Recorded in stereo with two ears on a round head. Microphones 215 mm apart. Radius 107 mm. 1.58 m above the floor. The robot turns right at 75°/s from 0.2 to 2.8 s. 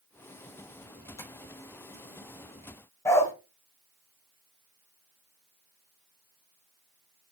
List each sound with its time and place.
1.2 s tapping: 15° left (ahead or behind), 2.5 m; by 1.3 s 5° left (ahead or behind), 2.5 m
3.0 s a dog barking: 10° left (ahead or behind), 1.4 m